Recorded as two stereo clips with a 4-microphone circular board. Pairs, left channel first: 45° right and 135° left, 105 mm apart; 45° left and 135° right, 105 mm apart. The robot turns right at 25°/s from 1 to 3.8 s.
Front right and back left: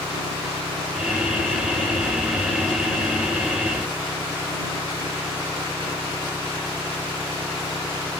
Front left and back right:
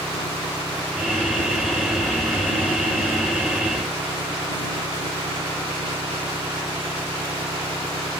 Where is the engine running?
135° left; by 8.2 s 155° right.